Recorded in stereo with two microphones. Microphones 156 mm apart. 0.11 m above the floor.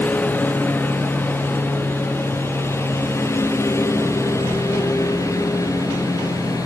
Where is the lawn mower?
10° left (ahead or behind); by 6.7 s 20° left (ahead or behind).